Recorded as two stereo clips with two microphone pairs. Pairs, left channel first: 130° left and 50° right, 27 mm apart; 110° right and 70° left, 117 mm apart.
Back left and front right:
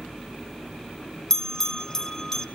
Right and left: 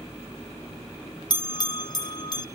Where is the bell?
160° right, 0.9 m.